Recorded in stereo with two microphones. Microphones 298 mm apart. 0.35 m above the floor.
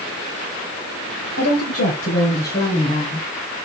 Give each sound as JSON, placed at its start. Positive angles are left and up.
{"t": 1.4, "sound": "a woman speaking", "side_deg": 55, "distance_m": 1.7}